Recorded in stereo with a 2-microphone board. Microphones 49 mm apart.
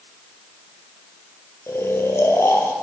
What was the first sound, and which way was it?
Snoring, 65° left (ahead or behind).